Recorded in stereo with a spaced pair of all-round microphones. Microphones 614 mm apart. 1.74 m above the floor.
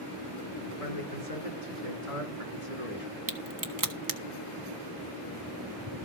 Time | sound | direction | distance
0.7 | a man speaking | 70° left (ahead or behind) | 6 m
3.3 | a crack | 30° right (ahead or behind) | 1.5 m